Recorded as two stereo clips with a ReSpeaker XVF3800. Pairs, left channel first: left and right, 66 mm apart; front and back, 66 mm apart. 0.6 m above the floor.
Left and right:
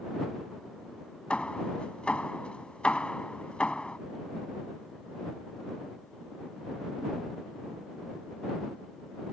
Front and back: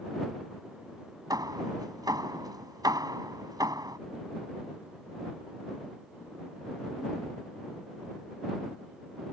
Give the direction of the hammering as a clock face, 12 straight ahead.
7 o'clock.